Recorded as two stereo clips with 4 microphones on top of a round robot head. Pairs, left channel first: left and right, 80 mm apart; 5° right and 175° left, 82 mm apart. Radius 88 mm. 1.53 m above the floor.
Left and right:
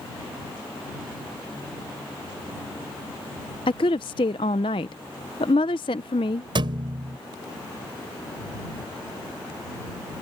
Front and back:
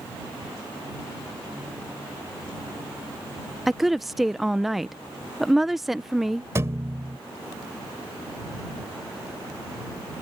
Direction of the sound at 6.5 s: 115° right.